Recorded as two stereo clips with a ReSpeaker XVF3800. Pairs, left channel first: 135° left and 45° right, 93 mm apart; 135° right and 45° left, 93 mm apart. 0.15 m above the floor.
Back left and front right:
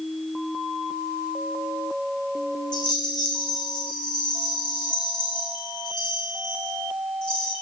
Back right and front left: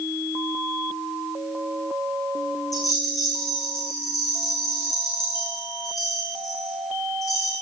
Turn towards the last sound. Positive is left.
turn(degrees=175)